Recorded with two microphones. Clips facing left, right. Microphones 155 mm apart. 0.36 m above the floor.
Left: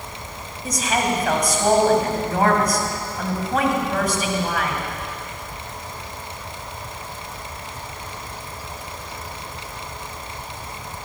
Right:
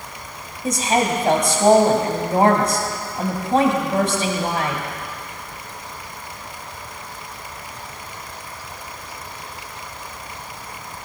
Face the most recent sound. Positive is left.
turn(degrees=-30)  # may be behind; listen again after turning